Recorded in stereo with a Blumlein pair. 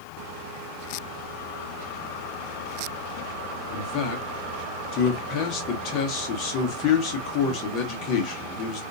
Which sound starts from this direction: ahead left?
A man speaking, at 3.7 s.